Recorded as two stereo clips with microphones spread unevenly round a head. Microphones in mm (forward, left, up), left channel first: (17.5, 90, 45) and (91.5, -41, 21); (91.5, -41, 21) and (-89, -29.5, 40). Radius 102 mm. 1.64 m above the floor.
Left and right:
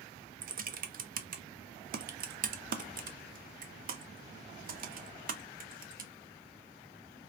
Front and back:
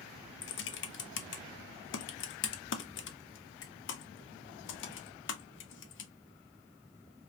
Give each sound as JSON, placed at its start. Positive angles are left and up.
{"t": 0.4, "sound": "typing on a keyboard", "azimuth_deg": -25, "distance_m": 0.6}